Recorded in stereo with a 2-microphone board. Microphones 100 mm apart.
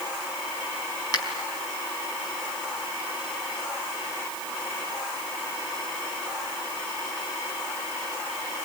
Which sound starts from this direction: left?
A finger snap, at 1.1 s.